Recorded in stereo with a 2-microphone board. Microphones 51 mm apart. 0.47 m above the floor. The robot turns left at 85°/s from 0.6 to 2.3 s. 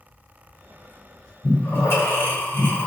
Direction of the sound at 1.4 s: 50° left (ahead or behind).